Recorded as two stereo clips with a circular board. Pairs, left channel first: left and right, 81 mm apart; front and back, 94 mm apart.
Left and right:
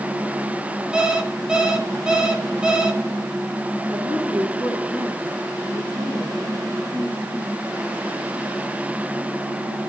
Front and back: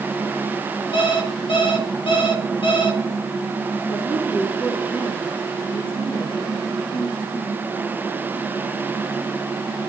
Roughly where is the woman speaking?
Ahead.